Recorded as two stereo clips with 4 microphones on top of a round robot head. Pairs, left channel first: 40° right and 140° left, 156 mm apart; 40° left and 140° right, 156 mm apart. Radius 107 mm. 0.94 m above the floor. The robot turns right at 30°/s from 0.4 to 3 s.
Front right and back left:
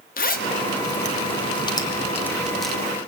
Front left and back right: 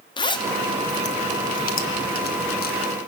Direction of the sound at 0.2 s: 20° right.